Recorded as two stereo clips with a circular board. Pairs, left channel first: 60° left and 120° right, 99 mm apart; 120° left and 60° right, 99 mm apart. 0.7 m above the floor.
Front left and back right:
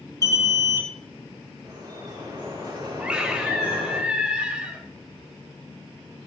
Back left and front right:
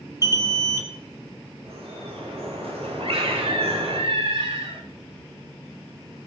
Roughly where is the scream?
Ahead right.